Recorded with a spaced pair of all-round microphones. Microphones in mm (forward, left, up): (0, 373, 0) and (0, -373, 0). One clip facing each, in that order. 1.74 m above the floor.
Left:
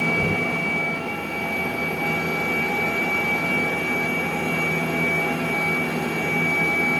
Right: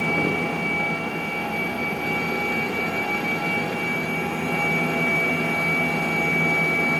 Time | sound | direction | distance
0.2 | knocking | 30° left (ahead or behind) | ?